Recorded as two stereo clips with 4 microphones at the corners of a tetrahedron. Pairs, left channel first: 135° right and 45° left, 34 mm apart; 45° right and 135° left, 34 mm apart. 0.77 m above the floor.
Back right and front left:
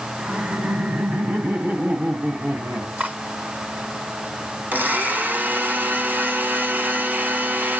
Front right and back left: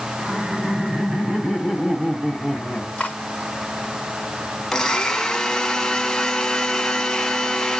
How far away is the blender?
About 1.3 m.